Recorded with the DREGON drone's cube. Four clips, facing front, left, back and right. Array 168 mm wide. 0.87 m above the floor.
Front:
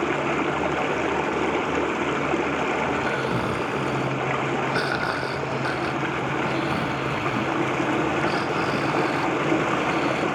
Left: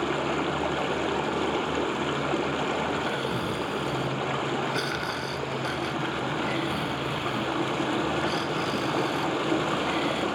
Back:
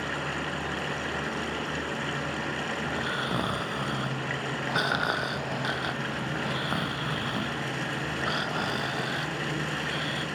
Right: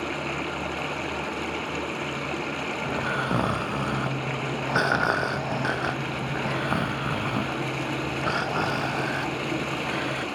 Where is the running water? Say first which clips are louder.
Left 4 dB, front 9 dB; 20° left, 0.9 m.